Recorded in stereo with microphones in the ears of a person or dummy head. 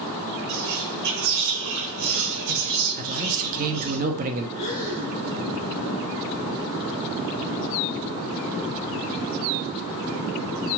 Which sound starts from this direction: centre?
Breathing, at 4.6 s.